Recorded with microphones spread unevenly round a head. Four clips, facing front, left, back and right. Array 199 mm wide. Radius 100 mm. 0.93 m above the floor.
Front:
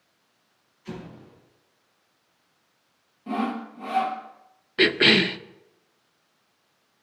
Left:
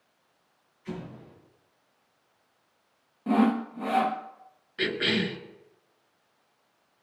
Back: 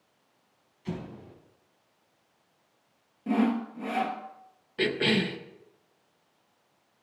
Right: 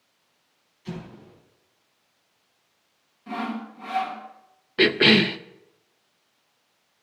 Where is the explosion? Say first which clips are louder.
Right 1 dB, back 1 dB; 160° right, 4 m.